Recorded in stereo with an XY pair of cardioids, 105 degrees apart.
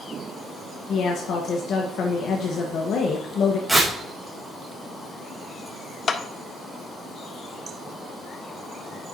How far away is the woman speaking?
About 1.1 m.